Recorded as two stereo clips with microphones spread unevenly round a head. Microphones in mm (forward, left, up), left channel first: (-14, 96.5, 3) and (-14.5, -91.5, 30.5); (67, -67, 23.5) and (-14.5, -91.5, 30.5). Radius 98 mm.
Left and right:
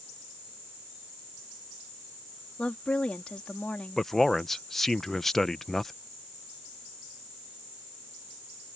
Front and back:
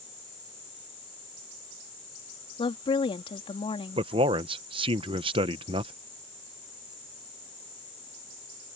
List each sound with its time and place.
2.6 s a woman speaking: straight ahead
4.0 s a man speaking: straight behind